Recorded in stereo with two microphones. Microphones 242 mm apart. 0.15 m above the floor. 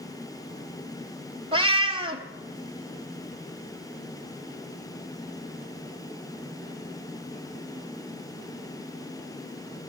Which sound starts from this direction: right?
A cat meowing, at 1.5 s.